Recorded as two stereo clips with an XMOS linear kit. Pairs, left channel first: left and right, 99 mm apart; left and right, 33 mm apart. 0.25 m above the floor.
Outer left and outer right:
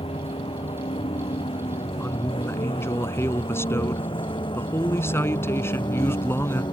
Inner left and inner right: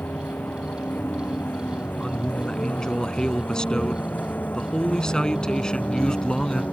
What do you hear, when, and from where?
0.0 s a vehicle: 70° left (ahead or behind); by 6.7 s 50° left (ahead or behind)
2.0 s a man speaking: 25° left (ahead or behind)